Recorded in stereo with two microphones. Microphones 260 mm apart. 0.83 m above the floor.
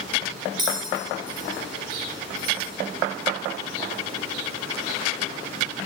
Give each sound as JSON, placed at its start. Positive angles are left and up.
{"t": 0.6, "sound": "a bell", "side_deg": -15, "distance_m": 1.7}